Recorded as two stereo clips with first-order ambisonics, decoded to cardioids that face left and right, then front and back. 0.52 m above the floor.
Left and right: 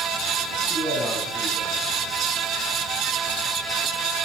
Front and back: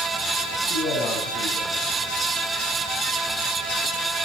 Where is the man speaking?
5° left, 3.5 m.